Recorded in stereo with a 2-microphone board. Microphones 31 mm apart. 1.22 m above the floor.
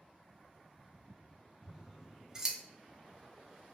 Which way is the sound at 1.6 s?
15° right (ahead or behind).